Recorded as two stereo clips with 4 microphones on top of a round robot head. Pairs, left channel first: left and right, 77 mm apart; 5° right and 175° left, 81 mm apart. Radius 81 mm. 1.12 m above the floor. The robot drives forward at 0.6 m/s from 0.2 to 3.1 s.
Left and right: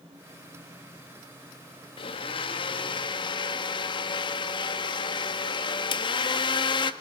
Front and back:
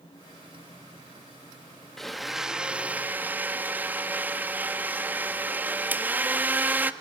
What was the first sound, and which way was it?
A blender, 80° left.